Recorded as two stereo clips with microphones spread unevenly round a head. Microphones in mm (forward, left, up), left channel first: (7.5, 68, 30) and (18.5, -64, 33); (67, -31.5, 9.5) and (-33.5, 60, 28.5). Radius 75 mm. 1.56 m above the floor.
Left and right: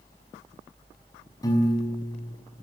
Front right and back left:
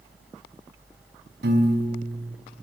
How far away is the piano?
About 5.5 m.